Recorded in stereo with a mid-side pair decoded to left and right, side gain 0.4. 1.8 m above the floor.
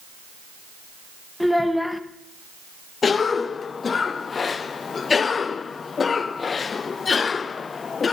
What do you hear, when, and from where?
1.4 s a child speaking: 5° left, 1.9 m
3.0 s a cough: 45° left, 0.8 m